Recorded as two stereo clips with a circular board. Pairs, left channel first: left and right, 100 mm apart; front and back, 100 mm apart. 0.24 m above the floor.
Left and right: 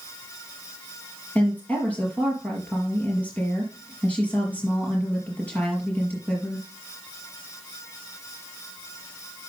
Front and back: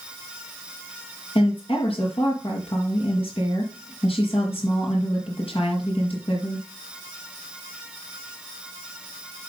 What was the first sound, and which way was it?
A woman speaking, 15° left.